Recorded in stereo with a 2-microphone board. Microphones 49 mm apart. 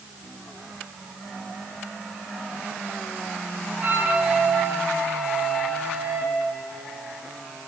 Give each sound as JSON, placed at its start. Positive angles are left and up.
{"t": 3.8, "sound": "a flute", "side_deg": -40, "distance_m": 5.0}